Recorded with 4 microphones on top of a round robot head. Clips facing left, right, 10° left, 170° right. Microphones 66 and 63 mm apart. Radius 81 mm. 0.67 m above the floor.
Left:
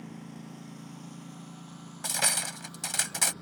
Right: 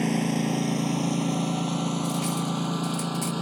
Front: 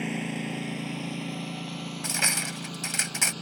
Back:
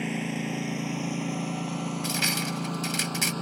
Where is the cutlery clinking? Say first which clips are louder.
Right 6 dB, front 2 dB; 75° left.